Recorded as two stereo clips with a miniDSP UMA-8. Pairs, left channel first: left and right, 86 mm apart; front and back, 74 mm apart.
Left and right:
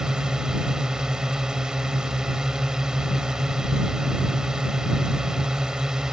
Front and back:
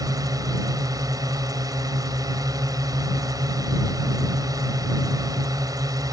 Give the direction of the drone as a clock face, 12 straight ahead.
6 o'clock.